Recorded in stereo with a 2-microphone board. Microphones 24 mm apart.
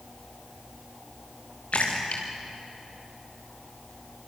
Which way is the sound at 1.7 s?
65° left (ahead or behind).